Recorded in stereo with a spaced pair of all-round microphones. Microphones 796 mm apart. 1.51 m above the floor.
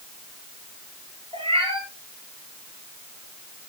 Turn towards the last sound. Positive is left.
turn(degrees=-5)  # may be behind; listen again after turning